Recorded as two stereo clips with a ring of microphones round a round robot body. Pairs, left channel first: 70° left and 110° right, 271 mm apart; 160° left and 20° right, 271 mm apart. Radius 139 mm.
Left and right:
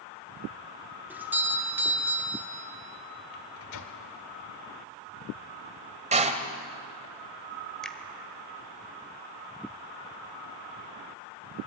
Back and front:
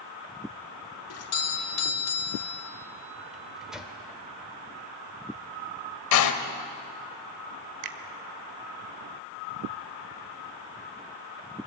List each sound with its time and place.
1.1 s a doorbell: 165° left, 3 m
3.3 s a microwave: 65° left, 2 m
6.1 s a door slam: straight behind, 1.9 m
7.8 s a finger snap: 20° right, 1.6 m